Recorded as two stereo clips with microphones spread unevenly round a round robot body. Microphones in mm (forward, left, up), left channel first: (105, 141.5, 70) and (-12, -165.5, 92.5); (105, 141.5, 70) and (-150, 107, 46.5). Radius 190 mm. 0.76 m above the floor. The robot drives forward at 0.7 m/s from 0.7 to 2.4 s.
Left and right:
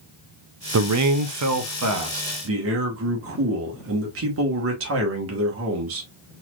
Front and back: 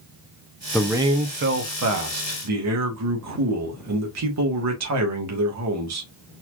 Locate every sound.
0.7 s a man speaking: 75° right, 0.5 m; by 6.1 s 165° right, 1.2 m